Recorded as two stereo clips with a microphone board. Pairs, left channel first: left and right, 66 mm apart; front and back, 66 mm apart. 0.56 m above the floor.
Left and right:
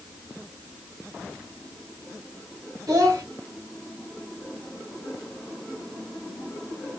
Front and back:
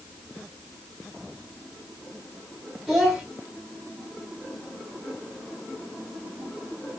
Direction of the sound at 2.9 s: 90° right.